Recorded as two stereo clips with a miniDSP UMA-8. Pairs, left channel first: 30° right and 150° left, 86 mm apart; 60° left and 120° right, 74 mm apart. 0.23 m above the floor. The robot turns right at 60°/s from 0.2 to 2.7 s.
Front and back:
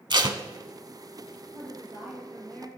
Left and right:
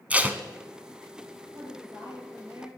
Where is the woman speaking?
160° right, 4 m; by 2.7 s 90° right, 4 m.